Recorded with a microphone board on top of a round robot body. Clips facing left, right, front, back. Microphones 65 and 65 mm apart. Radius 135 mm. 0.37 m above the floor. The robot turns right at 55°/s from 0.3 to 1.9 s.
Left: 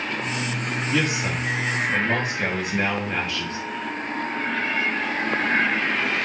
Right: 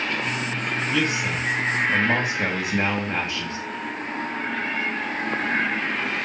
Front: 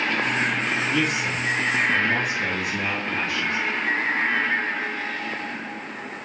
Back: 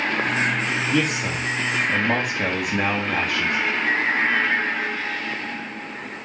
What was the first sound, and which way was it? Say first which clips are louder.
A man speaking: left 1 dB, back 1 dB; 150° left.